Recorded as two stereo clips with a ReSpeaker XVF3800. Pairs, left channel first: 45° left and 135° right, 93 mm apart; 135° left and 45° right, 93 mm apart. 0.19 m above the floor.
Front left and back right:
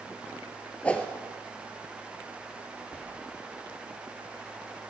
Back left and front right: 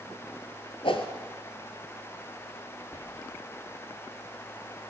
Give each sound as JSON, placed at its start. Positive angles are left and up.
{"t": 0.8, "sound": "a whoosh", "azimuth_deg": 120, "distance_m": 1.2}
{"t": 2.9, "sound": "whispering", "azimuth_deg": 125, "distance_m": 4.5}